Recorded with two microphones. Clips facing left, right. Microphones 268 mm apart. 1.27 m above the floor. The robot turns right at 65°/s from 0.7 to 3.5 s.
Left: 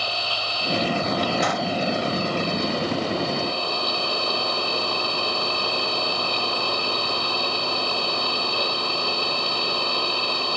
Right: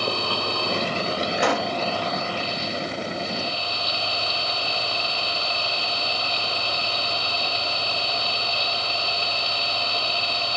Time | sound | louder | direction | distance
0.0 | an engine running | right 6 dB | 60° right | ?
1.4 | a pop | right 1 dB | 65° right (ahead or behind) | ?